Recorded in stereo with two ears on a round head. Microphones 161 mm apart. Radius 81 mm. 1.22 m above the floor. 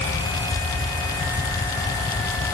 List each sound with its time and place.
Only background noise.